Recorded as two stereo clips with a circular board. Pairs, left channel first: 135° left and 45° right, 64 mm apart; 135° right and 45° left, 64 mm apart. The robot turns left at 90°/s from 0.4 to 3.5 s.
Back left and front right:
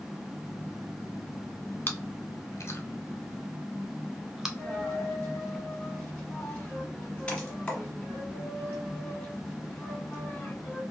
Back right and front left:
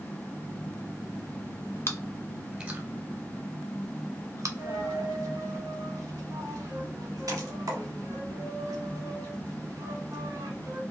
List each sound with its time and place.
1.9 s chewing: 175° right, 0.5 m; by 4.5 s 40° left, 0.5 m
4.6 s a dropped coin: 70° left, 1.1 m